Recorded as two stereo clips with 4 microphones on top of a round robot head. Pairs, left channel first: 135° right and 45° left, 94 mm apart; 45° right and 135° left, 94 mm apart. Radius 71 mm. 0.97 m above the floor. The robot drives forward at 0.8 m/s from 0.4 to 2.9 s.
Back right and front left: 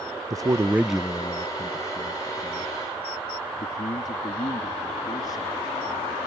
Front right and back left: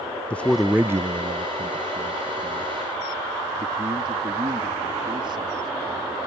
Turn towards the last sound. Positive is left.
turn(degrees=175)